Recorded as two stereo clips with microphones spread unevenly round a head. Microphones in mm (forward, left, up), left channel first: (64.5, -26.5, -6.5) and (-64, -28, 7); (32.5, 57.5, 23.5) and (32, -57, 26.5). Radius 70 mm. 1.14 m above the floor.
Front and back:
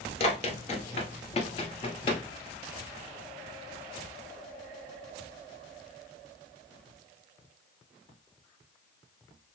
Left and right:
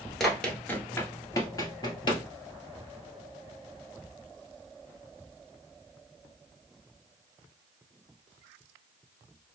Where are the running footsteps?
Straight ahead, 1.3 m; by 2.2 s 55° left, 1.7 m.